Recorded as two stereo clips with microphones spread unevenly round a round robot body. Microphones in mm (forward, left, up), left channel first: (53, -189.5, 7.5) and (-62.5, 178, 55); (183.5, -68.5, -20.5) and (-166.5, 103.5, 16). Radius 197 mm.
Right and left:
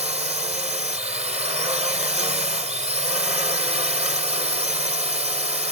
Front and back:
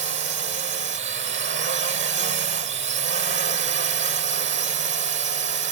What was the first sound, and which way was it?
A drone, 175° left.